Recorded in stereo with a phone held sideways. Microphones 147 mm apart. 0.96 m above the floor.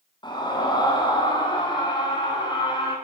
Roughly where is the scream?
Left.